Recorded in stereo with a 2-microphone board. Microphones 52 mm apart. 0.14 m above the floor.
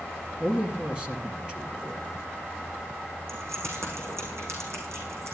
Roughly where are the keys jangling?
Right.